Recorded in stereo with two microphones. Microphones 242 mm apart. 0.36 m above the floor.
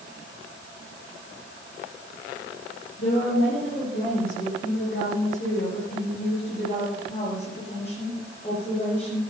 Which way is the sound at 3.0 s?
65° left (ahead or behind).